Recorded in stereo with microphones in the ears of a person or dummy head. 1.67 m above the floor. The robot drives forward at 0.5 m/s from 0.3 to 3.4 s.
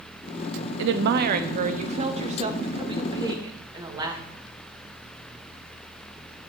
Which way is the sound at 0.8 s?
70° right (ahead or behind).